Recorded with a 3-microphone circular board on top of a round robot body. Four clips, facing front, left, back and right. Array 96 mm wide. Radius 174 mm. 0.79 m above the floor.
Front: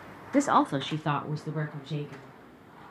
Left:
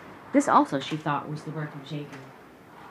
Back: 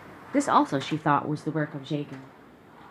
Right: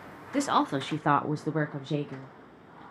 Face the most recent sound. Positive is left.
turn(degrees=-120)